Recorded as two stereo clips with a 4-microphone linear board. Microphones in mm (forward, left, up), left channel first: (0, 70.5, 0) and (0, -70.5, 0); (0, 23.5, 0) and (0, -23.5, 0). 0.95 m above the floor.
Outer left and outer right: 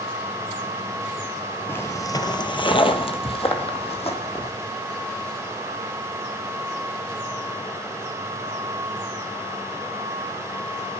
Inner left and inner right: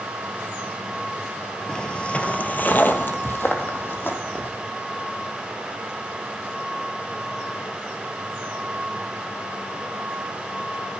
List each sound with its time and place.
1.7 s footsteps: 15° left (ahead or behind), 0.9 m; by 4.5 s 45° left (ahead or behind), 2 m